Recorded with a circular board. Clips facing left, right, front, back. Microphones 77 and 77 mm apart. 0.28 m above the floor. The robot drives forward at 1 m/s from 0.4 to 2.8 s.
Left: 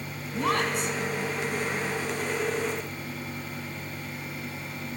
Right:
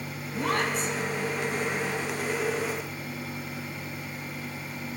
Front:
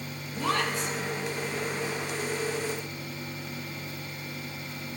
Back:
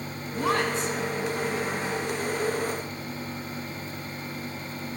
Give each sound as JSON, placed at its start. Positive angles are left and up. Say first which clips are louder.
{"t": 0.3, "sound": "a woman speaking", "louder": "left 1 dB, back 3 dB", "azimuth_deg": 105, "distance_m": 3.0}